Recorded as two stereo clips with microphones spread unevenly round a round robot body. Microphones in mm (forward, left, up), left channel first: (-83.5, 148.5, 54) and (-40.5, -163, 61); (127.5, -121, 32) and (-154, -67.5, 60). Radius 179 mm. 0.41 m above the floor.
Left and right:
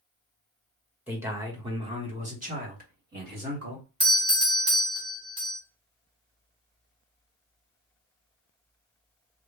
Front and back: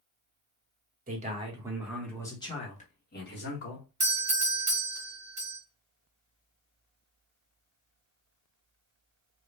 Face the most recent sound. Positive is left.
turn(degrees=-140)